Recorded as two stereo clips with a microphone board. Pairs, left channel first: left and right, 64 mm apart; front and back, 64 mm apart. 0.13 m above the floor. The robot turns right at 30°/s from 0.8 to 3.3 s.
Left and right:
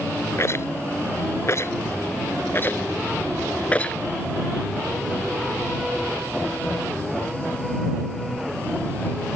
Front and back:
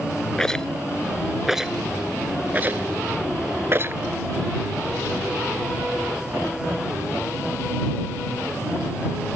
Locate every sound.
0.4 s a rattle: 75° left; by 4.0 s 150° left